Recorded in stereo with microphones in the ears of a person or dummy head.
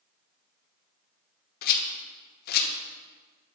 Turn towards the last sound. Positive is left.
turn(degrees=60)  # may be behind; listen again after turning